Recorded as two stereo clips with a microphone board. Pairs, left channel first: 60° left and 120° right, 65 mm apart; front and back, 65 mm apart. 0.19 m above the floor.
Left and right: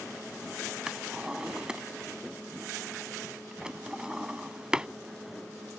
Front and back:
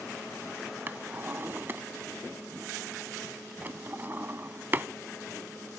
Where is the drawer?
175° left.